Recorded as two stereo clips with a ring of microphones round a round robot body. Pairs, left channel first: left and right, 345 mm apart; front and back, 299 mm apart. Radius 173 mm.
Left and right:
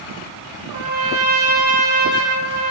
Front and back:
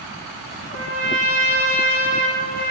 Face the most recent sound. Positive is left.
turn(degrees=-125)